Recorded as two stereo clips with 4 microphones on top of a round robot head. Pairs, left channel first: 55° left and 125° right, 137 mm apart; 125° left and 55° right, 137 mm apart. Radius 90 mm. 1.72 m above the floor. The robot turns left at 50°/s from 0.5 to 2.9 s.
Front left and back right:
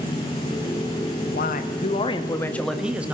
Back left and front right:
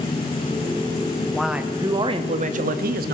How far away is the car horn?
I don't hear a car horn.